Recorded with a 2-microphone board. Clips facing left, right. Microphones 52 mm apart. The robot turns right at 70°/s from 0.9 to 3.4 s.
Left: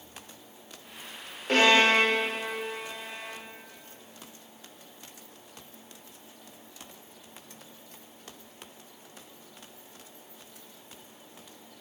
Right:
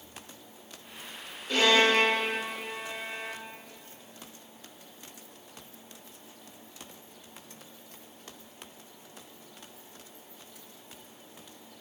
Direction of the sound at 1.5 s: 50° left (ahead or behind).